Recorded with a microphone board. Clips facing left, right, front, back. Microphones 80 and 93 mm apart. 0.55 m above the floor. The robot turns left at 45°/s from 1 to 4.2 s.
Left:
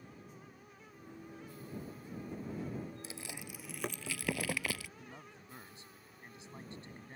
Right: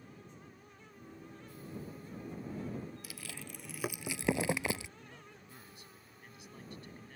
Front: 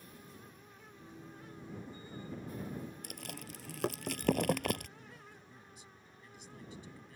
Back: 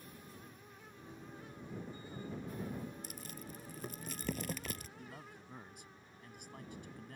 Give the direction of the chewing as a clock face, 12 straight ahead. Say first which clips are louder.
Left 1 dB, front 2 dB; 11 o'clock.